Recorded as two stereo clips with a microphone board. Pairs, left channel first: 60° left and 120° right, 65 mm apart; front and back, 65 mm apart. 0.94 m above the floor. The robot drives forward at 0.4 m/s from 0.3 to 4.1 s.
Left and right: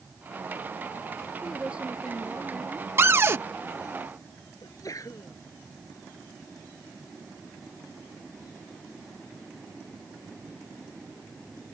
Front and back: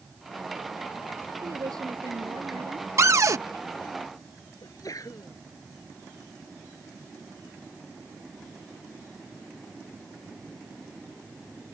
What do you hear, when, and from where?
1.4 s a woman speaking: 165° left
3.0 s a cupboard door: 160° right; by 3.4 s 165° right
4.6 s a sneeze: 25° left